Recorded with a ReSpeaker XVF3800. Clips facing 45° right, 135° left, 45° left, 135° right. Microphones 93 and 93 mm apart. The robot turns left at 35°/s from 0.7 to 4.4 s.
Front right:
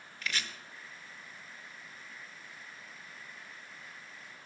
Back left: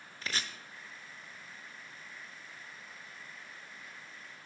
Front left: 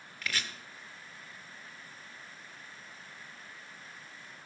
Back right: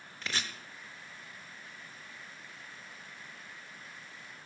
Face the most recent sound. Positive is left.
turn(degrees=45)